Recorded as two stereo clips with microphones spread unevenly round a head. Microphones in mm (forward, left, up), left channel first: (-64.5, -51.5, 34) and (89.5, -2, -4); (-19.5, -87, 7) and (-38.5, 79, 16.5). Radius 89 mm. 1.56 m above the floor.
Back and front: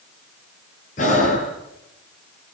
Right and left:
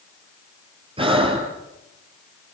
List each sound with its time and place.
1.0 s breathing: 155° left, 5 m